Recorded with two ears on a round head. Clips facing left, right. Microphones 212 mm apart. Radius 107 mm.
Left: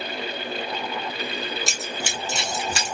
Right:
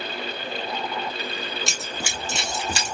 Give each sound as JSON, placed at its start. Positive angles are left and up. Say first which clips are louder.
{"t": 1.7, "sound": "running footsteps", "louder": "left 2 dB", "side_deg": 5, "distance_m": 0.9}